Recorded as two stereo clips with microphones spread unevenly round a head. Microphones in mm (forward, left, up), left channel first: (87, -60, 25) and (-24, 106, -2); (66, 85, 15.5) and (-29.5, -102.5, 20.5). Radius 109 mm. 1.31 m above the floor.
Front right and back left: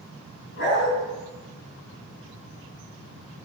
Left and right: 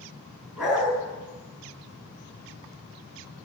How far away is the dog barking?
About 5.5 m.